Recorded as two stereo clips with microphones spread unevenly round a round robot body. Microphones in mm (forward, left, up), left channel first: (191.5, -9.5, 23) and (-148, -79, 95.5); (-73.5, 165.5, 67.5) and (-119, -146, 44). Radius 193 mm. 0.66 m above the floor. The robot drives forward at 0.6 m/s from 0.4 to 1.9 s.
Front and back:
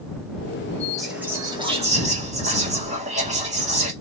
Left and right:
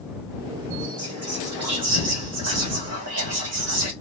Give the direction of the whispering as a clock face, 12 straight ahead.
2 o'clock.